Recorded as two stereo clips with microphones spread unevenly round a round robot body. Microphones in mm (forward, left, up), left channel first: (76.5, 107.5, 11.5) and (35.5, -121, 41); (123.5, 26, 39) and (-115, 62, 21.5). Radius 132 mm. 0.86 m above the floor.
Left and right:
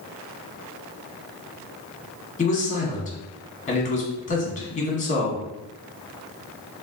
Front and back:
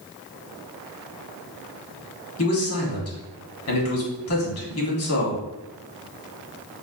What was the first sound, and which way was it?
A man speaking, 20° left.